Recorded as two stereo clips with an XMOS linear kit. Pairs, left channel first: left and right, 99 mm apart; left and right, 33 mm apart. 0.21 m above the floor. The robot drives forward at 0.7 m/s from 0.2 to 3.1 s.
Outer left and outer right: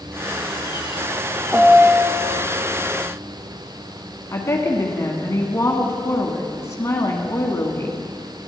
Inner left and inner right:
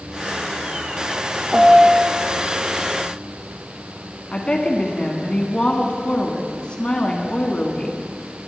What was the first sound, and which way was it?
A piano, 15° right (ahead or behind).